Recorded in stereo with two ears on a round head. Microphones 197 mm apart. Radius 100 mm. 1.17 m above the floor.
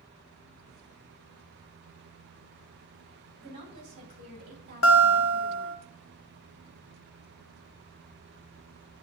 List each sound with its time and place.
3.4 s a woman speaking: 25° right (ahead or behind), 3.5 m; by 5.8 s 50° right (ahead or behind), 2 m
4.8 s a guitar: 60° left (ahead or behind), 0.8 m